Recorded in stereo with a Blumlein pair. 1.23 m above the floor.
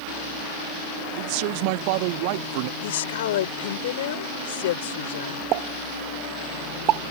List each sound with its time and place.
1.2 s a man speaking: 45° right
2.8 s a woman speaking: 55° left
5.5 s a pop: 40° right